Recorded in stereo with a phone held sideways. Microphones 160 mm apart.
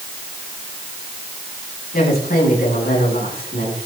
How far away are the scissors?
I don't hear scissors.